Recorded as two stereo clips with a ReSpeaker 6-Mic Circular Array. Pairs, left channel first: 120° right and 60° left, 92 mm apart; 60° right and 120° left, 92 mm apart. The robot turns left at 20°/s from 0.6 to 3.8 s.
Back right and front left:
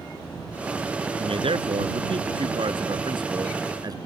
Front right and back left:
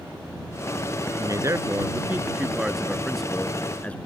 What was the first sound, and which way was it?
A man speaking, 70° left.